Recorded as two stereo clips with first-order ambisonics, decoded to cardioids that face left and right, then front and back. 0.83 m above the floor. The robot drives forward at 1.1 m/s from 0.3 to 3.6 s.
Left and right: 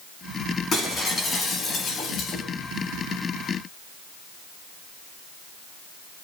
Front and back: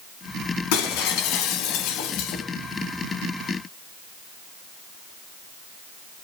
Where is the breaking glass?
20° left, 4 m; by 2.5 s 35° left, 2.5 m.